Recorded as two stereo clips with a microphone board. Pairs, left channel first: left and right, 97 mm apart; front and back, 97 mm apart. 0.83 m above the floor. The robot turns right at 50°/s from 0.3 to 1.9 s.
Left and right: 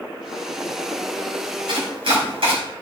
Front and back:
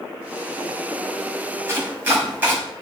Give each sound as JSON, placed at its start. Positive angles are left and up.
{"t": 1.7, "sound": "chopping", "azimuth_deg": -120, "distance_m": 4.5}